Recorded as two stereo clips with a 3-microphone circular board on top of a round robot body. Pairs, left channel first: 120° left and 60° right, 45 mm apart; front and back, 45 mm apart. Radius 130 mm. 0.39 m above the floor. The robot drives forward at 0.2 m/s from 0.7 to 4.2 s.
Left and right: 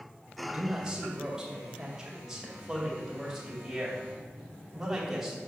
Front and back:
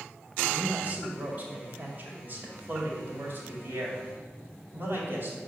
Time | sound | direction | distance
0.4 | a man speaking | 130° right | 2 m